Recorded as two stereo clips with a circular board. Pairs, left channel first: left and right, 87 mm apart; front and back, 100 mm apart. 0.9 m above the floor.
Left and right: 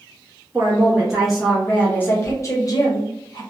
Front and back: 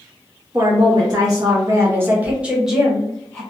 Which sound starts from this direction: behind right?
A woman speaking, at 0.5 s.